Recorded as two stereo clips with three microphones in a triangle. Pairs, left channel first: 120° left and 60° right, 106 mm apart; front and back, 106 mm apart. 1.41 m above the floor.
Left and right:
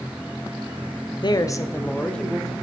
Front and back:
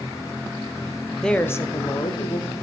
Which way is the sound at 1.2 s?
85° left.